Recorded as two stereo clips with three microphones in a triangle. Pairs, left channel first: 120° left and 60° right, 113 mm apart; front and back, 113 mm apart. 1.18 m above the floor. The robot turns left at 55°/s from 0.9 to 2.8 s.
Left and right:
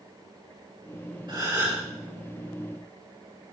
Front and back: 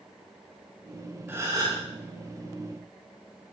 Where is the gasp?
110° right, 8.5 m; by 1.8 s 140° right, 8.5 m.